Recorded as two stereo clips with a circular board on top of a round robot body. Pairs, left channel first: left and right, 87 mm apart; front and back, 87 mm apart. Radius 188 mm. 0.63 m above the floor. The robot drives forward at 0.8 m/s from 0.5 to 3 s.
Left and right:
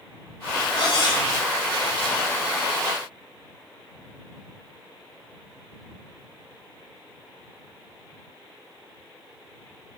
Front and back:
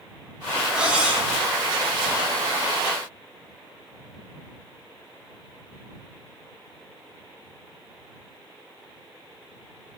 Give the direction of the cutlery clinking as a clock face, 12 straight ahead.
9 o'clock.